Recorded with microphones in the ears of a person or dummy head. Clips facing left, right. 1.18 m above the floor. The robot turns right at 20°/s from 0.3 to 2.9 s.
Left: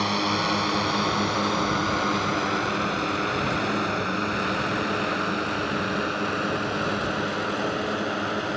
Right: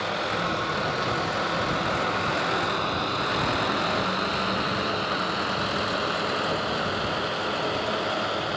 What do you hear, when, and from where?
0.0 s a drone: 85° left; by 8.6 s 35° left (ahead or behind)